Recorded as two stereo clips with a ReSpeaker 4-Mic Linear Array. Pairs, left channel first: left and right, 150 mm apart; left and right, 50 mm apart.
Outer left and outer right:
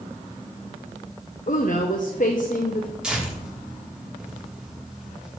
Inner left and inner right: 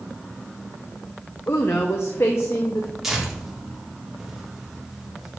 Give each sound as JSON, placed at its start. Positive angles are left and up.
{"t": 1.5, "sound": "a woman speaking", "side_deg": 60, "distance_m": 0.7}
{"t": 3.0, "sound": "tearing paper", "side_deg": -5, "distance_m": 1.8}